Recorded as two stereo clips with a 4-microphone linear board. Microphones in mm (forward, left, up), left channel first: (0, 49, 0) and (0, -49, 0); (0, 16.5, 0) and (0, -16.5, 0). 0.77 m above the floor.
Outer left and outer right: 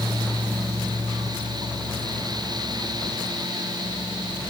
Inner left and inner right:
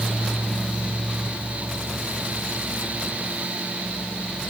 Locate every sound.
Only background noise.